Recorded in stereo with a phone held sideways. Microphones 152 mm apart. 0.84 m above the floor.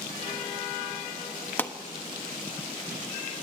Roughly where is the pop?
Centre.